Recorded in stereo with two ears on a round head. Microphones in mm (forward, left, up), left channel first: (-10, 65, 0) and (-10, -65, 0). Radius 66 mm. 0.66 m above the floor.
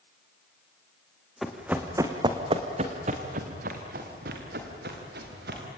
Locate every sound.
1.4 s running footsteps: centre (ahead or behind), 2 m; by 5.6 s 85° right, 5.5 m